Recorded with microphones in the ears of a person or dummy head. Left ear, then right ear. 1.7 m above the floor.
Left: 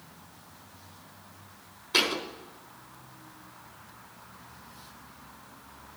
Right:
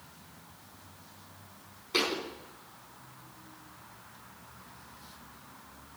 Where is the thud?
10° left (ahead or behind), 3.5 m.